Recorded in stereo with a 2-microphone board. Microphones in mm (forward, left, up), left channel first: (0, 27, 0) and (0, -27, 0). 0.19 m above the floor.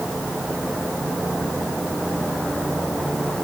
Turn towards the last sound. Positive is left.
No sound to turn to.